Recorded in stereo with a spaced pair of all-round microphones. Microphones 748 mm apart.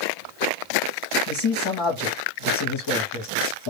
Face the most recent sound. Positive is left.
turn(degrees=35)  # may be behind; listen again after turning